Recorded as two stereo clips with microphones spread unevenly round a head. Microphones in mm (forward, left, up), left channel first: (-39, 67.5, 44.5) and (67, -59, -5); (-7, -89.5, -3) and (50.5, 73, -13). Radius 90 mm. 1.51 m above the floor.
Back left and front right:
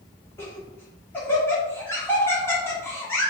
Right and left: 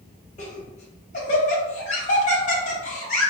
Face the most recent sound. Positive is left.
turn(degrees=-160)